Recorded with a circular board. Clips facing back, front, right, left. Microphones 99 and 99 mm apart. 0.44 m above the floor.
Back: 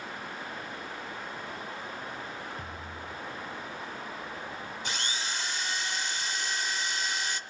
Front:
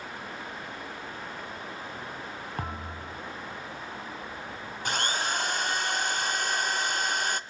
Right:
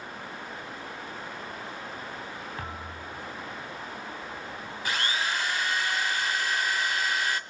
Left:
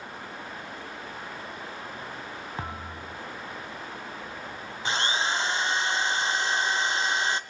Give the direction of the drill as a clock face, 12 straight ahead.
11 o'clock.